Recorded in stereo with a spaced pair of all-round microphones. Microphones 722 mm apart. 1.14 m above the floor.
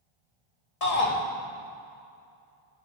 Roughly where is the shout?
Left.